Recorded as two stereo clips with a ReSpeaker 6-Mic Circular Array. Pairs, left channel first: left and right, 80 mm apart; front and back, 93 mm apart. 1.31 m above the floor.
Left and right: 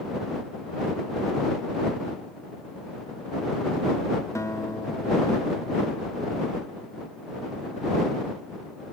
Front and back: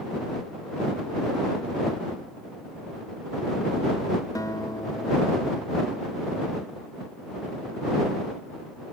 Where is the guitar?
45° left.